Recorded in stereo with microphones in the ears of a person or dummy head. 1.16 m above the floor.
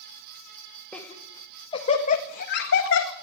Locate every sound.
0.9 s laughter: 10° left (ahead or behind), 2.5 m; by 3.1 s 70° left (ahead or behind), 2.0 m